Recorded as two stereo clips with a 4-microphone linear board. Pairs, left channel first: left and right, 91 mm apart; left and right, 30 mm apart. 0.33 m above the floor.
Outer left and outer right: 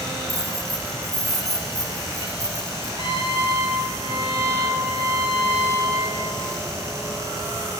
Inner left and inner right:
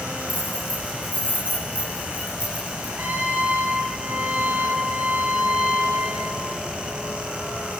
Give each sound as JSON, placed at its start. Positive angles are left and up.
{"t": 0.3, "sound": "keys jangling", "side_deg": -40, "distance_m": 10.0}
{"t": 3.0, "sound": "a trumpet", "side_deg": -75, "distance_m": 6.5}